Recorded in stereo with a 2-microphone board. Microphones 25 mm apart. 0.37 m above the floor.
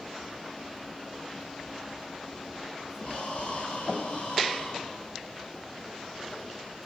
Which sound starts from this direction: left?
Breathing, at 3.0 s.